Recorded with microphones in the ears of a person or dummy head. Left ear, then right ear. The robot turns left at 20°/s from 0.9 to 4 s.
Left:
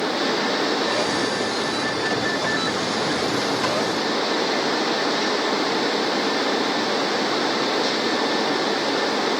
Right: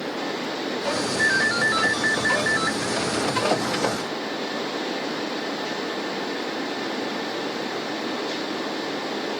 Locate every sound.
1.2 s a ringtone: 115° right; by 2.8 s 150° right